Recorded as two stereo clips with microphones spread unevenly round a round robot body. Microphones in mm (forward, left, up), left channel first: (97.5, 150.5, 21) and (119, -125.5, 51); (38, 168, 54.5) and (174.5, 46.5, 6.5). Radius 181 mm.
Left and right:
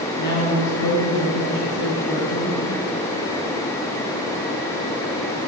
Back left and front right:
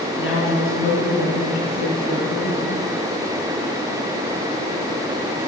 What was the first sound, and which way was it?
A woman speaking, 125° left.